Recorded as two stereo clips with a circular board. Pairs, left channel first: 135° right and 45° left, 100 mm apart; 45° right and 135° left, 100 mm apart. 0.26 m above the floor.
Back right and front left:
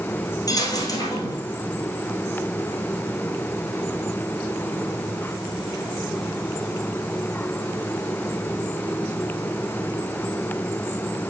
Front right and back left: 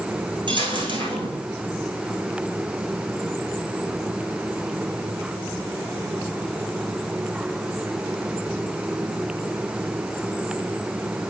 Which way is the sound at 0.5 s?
175° left.